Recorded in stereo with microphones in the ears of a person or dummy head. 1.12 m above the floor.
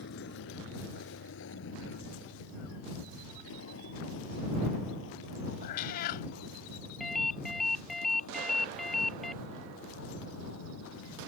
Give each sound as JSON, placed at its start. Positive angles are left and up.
{"t": 0.0, "sound": "a vehicle", "side_deg": 70}
{"t": 5.6, "sound": "a cat meowing", "side_deg": 60}
{"t": 7.0, "sound": "a ringtone", "side_deg": 0}